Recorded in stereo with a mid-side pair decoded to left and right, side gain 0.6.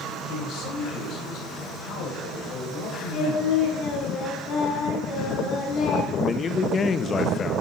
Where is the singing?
50° left, 7 m.